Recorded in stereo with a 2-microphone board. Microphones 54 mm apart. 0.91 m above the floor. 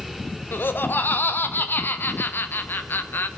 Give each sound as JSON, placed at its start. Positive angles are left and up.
{"t": 0.5, "sound": "laughter", "side_deg": 40, "distance_m": 0.9}